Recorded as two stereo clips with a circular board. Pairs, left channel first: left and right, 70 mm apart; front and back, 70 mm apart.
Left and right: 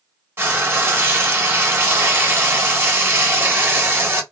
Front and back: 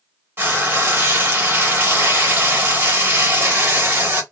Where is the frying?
135° right, 1.1 m.